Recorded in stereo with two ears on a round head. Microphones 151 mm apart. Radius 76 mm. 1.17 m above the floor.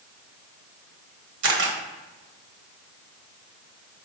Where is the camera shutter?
75° right (ahead or behind), 1.2 m.